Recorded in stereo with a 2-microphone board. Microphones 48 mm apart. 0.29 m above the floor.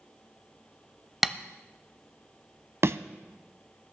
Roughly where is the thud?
Right.